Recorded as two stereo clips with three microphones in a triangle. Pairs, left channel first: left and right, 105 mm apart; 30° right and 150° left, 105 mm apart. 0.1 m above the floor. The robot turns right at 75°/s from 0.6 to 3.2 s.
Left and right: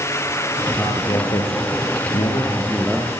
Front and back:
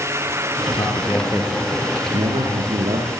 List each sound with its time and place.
0.7 s a man speaking: 10° left, 7.5 m; by 3.1 s 170° right, 7.5 m